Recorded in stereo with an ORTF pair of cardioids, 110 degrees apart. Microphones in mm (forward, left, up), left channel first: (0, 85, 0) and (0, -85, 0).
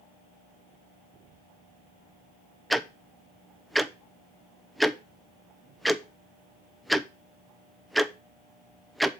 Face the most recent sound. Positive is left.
turn(degrees=0)